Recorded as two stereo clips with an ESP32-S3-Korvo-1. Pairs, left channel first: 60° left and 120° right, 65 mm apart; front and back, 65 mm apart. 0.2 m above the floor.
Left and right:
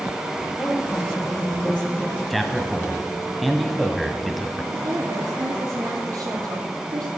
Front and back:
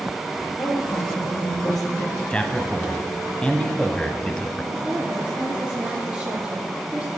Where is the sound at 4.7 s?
110° right, 8 m.